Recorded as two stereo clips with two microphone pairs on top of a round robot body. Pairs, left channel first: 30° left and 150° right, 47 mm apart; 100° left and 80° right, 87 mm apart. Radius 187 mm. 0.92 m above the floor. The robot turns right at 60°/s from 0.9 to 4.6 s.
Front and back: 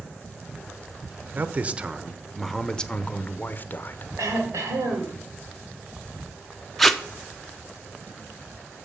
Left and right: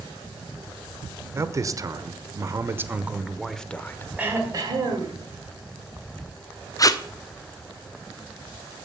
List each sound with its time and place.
1.3 s a man speaking: 120° right, 1.0 m; by 4.1 s 45° left, 1.0 m
4.2 s throat clearing: 155° right, 1.5 m; by 5.2 s 130° right, 1.5 m
6.8 s tape being pulled: 115° left, 1.0 m